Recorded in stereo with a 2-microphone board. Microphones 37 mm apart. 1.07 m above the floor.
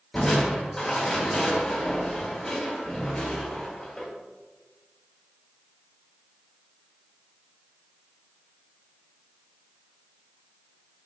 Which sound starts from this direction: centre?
Crushing, at 0.1 s.